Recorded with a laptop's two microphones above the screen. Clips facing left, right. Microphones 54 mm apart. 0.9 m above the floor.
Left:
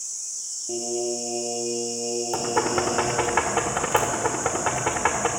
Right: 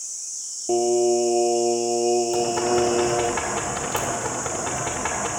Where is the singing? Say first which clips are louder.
Right 9 dB; 85° right, 1.3 m.